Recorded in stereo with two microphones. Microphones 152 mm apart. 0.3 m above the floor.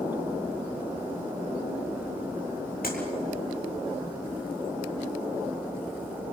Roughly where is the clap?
Left.